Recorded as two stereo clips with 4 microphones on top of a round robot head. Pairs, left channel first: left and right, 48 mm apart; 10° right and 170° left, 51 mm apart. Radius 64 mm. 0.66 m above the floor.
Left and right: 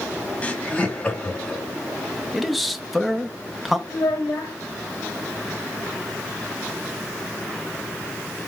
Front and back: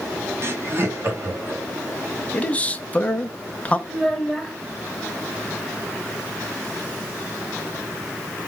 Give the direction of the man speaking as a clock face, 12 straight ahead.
12 o'clock.